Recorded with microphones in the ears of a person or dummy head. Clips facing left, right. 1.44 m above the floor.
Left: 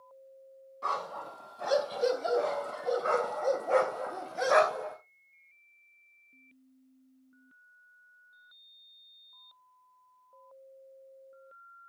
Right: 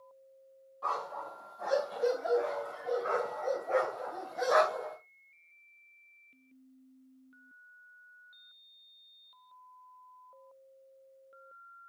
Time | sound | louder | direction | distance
0.8 | a dog barking | left 1 dB | 45° left (ahead or behind) | 3.5 m